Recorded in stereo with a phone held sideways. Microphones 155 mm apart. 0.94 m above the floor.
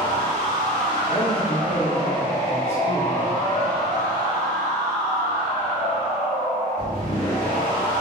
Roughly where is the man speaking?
Right.